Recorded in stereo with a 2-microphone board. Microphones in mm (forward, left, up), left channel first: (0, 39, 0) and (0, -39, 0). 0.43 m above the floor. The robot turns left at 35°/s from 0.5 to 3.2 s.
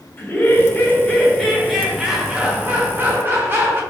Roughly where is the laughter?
Ahead left.